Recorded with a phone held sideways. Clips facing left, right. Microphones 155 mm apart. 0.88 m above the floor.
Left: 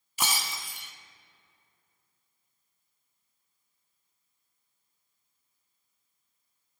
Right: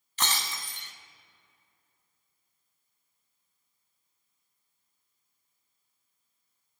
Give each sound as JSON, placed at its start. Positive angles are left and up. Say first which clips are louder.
{"t": 0.2, "sound": "breaking glass", "louder": "even", "side_deg": 10, "distance_m": 0.8}